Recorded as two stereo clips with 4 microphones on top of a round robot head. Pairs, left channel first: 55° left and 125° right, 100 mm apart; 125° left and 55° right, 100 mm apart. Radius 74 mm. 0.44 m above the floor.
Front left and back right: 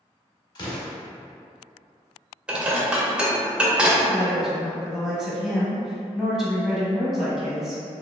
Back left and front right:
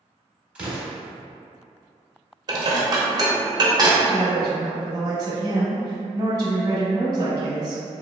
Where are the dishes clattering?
50° right, 0.7 m.